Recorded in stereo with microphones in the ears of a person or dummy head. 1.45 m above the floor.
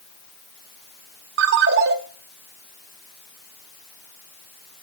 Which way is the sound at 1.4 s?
65° right (ahead or behind).